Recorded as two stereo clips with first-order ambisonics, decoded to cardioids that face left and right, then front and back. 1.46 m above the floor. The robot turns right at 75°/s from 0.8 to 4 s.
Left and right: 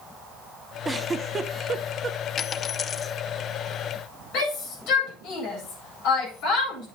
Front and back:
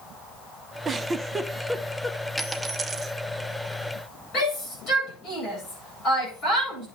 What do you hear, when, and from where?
0.8 s a giggle: 155° right, 0.5 m; by 2.2 s 55° right, 0.5 m
2.4 s a dropped coin: 90° left, 0.8 m; by 3.1 s 150° left, 0.8 m
4.3 s a shout: 55° left, 8.5 m